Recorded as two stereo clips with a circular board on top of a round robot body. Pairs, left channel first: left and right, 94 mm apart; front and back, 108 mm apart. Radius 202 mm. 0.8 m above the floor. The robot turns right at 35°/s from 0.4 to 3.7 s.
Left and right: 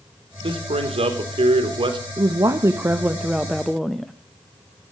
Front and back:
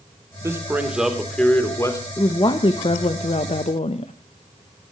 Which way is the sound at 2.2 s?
50° right.